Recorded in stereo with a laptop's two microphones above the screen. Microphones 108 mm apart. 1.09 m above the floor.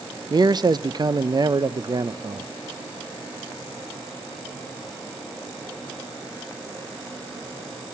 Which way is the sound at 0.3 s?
45° right (ahead or behind).